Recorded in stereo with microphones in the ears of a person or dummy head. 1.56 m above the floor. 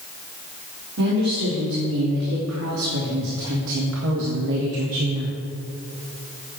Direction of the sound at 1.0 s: 65° right (ahead or behind).